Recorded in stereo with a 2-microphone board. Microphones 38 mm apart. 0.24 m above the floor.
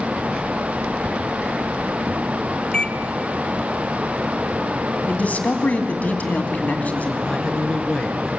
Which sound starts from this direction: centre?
A man speaking, at 7.2 s.